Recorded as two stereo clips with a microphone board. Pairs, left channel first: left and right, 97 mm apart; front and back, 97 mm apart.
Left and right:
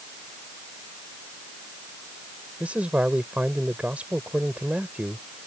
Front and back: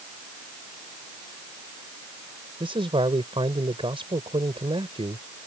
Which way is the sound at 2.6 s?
165° right.